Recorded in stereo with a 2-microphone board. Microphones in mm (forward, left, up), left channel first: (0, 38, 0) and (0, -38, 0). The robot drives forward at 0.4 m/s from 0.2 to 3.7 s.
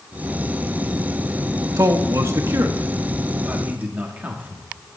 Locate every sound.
1.8 s a man speaking: 45° right (ahead or behind), 0.5 m; by 4.6 s 20° right (ahead or behind), 1.0 m